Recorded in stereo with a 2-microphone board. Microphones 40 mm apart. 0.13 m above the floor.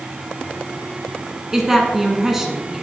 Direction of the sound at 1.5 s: 10° right (ahead or behind).